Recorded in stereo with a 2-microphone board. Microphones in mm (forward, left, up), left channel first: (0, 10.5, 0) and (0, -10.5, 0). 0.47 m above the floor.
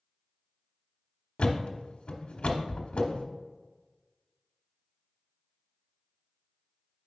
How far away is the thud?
About 0.9 m.